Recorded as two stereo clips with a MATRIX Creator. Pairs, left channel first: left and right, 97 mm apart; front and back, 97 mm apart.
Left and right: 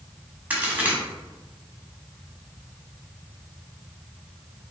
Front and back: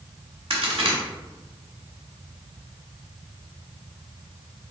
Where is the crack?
165° right, 1.1 m.